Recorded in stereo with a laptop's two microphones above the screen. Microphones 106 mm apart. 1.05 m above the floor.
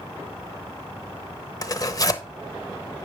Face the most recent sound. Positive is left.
turn(degrees=35)  # may be behind; listen again after turning